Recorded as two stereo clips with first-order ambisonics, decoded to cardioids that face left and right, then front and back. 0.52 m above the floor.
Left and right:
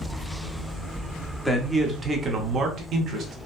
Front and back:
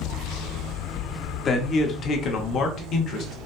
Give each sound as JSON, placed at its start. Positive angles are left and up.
{"t": 1.4, "sound": "a man speaking", "azimuth_deg": 10, "distance_m": 0.7}